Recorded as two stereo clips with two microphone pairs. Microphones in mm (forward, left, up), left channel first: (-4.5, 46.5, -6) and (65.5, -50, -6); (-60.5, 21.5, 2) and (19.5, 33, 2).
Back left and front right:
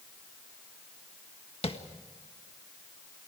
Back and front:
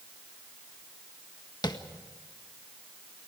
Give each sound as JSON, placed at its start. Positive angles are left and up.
{"t": 1.6, "sound": "tapping", "azimuth_deg": 160, "distance_m": 1.6}